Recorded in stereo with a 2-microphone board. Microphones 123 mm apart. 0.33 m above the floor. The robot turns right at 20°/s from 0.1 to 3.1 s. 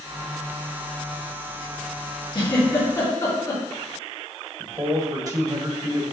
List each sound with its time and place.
2.3 s a giggle: 35° left (ahead or behind), 3.5 m; by 3.6 s 20° left (ahead or behind), 3.5 m
4.6 s a man speaking: 30° right (ahead or behind), 1.5 m